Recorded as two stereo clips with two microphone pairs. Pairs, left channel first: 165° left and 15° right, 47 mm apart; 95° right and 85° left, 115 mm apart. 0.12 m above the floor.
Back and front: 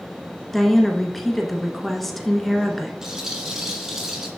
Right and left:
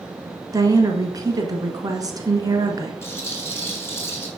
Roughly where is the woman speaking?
Left.